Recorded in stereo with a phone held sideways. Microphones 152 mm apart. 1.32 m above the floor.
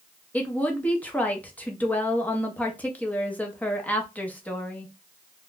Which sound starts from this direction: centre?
A woman speaking, at 0.3 s.